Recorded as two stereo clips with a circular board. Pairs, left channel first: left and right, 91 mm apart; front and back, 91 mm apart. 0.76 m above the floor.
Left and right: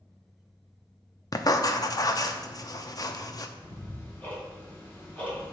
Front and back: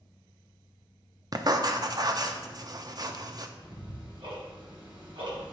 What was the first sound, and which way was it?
Writing, 135° left.